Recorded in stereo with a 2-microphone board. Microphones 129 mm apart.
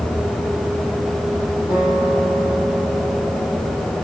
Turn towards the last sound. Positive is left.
turn(degrees=30)  # may be behind; listen again after turning